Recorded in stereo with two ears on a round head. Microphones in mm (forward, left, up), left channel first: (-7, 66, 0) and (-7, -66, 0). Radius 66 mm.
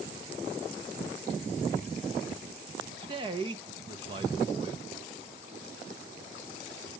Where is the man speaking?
35° right (ahead or behind), 1.0 m.